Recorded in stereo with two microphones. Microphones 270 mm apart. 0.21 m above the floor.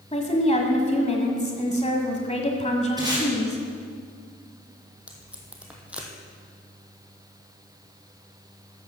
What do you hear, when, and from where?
0.1 s a woman speaking: 25° left (ahead or behind), 1.3 m
3.0 s tape being pulled: 15° right (ahead or behind), 5 m
5.1 s tape being pulled: 5° right (ahead or behind), 1.9 m